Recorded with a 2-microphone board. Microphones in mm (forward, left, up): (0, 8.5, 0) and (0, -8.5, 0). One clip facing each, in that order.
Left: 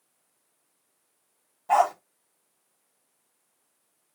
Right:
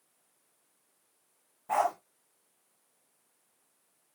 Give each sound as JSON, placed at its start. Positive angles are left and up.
{"t": 1.7, "sound": "a dog barking", "side_deg": 40, "distance_m": 1.8}